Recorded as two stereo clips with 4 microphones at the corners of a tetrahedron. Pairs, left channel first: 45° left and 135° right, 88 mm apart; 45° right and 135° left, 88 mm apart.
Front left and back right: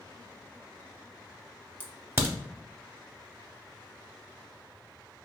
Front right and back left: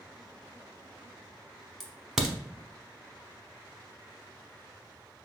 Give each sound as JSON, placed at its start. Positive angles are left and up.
{"t": 1.8, "sound": "a crack", "azimuth_deg": -145, "distance_m": 0.7}